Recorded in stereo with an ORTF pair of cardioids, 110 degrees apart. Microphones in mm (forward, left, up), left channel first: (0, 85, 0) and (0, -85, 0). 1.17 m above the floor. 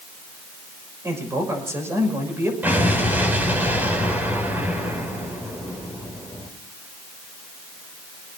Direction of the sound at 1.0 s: 15° right.